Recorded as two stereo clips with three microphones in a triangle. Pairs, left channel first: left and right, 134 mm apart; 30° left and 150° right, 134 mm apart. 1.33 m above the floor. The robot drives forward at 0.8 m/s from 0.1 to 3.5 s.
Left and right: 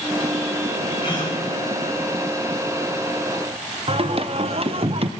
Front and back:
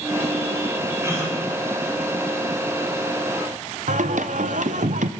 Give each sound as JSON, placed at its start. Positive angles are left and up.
{"t": 1.0, "sound": "a gasp", "azimuth_deg": 140, "distance_m": 3.0}
{"t": 3.9, "sound": "singing", "azimuth_deg": -135, "distance_m": 0.6}